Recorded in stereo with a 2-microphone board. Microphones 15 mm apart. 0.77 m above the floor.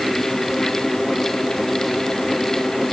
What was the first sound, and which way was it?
Only background noise.